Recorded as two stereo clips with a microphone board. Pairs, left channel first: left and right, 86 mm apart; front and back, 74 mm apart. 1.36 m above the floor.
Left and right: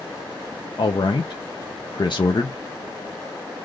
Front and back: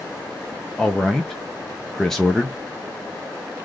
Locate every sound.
0.8 s a man speaking: 85° left, 0.6 m